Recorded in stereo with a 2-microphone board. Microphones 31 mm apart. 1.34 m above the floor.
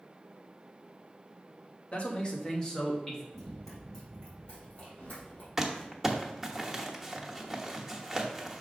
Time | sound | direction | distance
1.9 | a man speaking | 40° left (ahead or behind) | 1.5 m
3.3 | running footsteps | centre (ahead or behind) | 2 m
5.6 | crumpling | 10° right (ahead or behind) | 1.0 m